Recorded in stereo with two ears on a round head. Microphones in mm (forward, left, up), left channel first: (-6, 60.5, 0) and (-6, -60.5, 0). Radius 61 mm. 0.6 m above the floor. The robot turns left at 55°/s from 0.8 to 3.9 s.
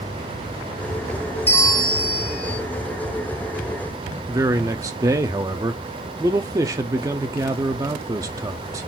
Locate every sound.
1.5 s a bell: 165° left, 2 m; by 2.6 s 100° left, 2 m
4.3 s a man speaking: 25° right (ahead or behind), 0.6 m